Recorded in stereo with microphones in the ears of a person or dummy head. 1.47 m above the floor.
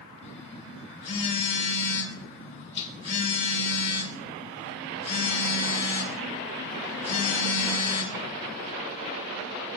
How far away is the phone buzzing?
About 1.8 m.